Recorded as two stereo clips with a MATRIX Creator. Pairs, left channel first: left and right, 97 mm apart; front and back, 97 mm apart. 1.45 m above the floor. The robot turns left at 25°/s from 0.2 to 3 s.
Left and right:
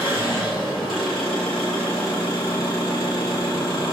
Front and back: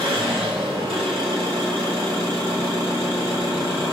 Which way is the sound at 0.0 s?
160° right.